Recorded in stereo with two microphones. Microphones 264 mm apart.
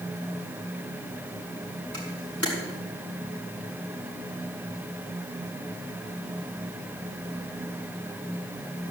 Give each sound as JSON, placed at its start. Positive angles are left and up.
{"t": 1.9, "sound": "a camera shutter", "side_deg": -65, "distance_m": 5.5}